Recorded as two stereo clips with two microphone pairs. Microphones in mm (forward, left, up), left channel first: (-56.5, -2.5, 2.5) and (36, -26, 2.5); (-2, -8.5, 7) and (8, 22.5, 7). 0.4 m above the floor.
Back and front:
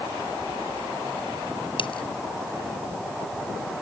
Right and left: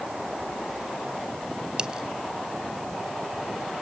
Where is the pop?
I don't hear a pop.